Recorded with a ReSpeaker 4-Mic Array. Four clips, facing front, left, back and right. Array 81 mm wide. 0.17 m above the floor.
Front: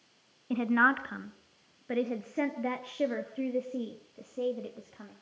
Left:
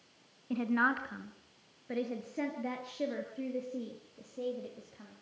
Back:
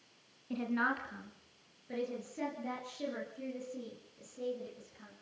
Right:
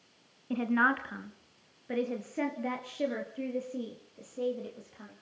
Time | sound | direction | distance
0.5 | a woman speaking | 15° right | 1.7 m